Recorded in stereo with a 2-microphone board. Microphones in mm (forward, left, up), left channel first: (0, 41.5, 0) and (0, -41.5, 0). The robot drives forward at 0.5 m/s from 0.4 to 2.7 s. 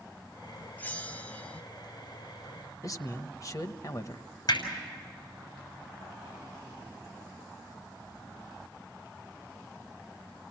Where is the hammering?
55° left (ahead or behind), 6.5 m.